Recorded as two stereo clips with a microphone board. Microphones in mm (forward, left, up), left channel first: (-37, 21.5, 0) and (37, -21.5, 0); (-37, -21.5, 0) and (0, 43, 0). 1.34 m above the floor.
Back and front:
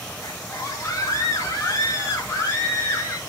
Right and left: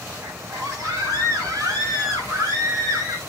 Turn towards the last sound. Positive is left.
turn(degrees=85)